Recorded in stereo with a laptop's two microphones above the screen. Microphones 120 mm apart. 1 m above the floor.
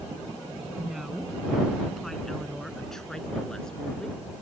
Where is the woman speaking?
Centre (ahead or behind); by 4.4 s 5° left (ahead or behind).